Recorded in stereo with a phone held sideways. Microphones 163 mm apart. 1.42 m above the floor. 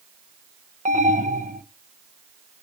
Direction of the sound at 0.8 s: 55° right (ahead or behind).